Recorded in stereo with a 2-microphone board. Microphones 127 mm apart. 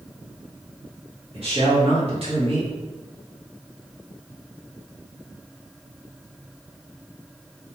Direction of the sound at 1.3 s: 50° right (ahead or behind).